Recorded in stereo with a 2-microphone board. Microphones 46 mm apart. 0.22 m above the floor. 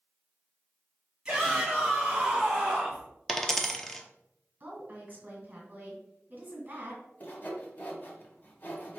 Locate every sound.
1.2 s a shout: 15° right (ahead or behind), 1.7 m; by 3.1 s 10° right (ahead or behind), 1.7 m
3.3 s a dropped coin: 10° left (ahead or behind), 0.5 m
4.6 s a woman speaking: 40° right (ahead or behind), 2 m
7.2 s sawing: 40° left (ahead or behind), 0.9 m